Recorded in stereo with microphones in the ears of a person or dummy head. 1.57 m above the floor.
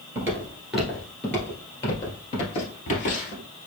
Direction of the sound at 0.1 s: 15° right (ahead or behind).